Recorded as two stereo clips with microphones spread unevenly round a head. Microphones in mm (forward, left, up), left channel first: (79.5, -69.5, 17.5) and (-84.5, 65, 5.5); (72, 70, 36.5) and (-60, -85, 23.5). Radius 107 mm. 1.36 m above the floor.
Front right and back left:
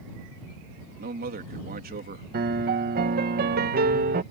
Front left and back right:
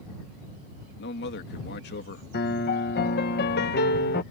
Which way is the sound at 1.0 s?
90° left.